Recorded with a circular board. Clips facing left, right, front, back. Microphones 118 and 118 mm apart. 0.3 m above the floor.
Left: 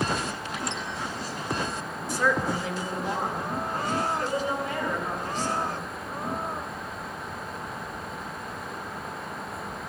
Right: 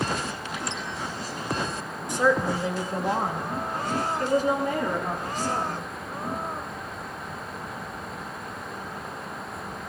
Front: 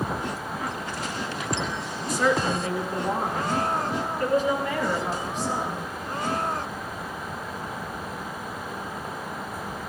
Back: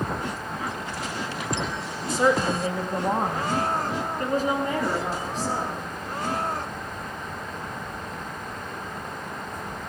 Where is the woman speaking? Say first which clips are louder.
Right 3 dB, back 2 dB; 145° right, 1.0 m; by 5.8 s 130° right, 4 m.